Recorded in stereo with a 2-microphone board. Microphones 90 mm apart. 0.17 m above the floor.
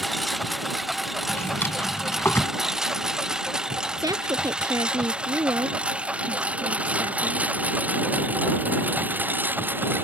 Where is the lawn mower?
Centre (ahead or behind); by 10.1 s 20° right (ahead or behind).